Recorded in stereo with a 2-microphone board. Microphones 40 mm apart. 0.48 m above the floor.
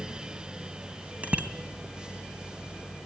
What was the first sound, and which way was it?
A bicycle bell, 35° right (ahead or behind).